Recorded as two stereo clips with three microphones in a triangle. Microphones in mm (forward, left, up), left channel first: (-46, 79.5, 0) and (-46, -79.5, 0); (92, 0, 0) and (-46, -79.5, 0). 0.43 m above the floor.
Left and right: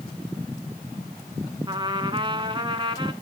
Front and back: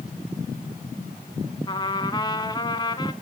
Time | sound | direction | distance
1.7 | a trumpet | 35° right | 1.2 m